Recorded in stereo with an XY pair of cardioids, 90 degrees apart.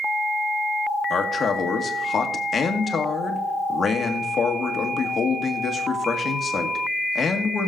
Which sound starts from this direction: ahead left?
A man speaking, at 1.1 s.